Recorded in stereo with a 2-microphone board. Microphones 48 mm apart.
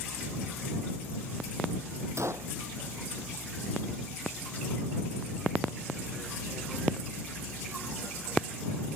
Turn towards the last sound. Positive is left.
turn(degrees=-75)  # may be behind; listen again after turning